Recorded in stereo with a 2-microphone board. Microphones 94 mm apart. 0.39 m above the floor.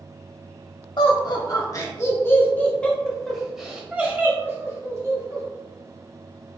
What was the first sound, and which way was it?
Laughter, 50° left (ahead or behind).